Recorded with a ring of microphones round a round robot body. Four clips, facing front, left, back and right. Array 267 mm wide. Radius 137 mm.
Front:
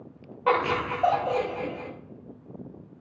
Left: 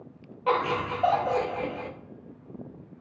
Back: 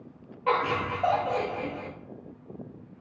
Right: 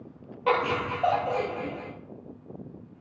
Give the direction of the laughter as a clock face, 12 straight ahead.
1 o'clock.